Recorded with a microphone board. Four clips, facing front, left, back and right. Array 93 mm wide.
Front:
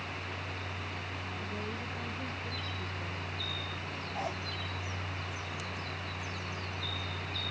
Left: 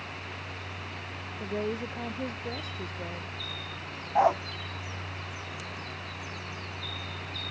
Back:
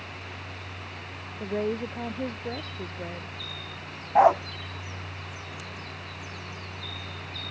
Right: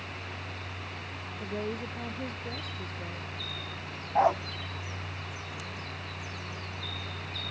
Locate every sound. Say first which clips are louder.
1.4 s a woman speaking: left 3 dB, back 14 dB; 165° left; by 3.4 s 155° left
4.2 s a dog barking: left 1 dB, back 21 dB; 170° left